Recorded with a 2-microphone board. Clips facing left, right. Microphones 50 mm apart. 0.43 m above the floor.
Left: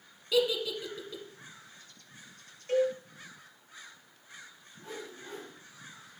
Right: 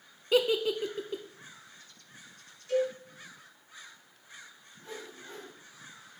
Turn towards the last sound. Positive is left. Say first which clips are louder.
# left 1 dB
turn(degrees=15)  # may be behind; listen again after turning